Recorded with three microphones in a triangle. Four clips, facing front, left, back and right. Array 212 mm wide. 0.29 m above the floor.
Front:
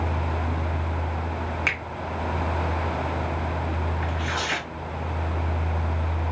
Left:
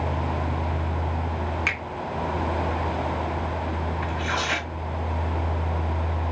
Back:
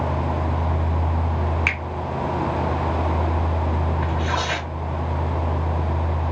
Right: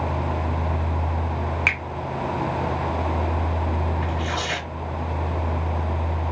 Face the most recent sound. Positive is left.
turn(degrees=165)